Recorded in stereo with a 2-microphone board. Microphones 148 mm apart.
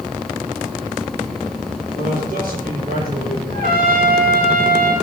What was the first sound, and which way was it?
A man speaking, 80° right.